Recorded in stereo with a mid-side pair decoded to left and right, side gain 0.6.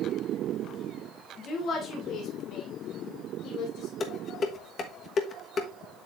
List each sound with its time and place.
1.4 s a woman speaking: 40° left, 2 m; by 3.9 s 70° left, 3.5 m
4.0 s dishes clattering: 40° left, 1.2 m